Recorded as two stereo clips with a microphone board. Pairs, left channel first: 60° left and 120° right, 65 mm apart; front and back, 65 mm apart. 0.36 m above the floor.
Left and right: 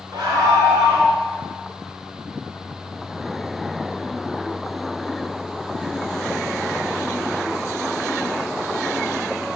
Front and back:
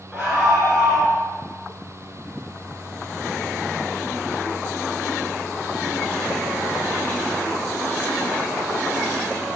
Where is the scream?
105° right, 4.5 m.